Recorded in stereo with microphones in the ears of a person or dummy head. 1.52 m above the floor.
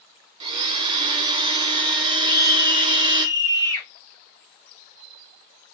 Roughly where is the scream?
Left.